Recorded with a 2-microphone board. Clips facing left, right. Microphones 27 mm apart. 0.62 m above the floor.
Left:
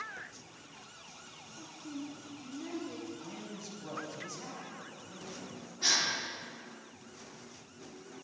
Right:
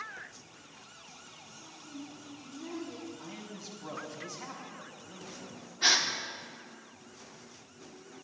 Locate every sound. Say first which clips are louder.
1.6 s a woman speaking: left 4 dB; 60° left (ahead or behind), 1.7 m; by 3.1 s 10° left (ahead or behind), 2 m
3.2 s a man speaking: even; 10° right (ahead or behind), 3.5 m
5.8 s a gasp: right 4 dB; 35° right (ahead or behind), 1.4 m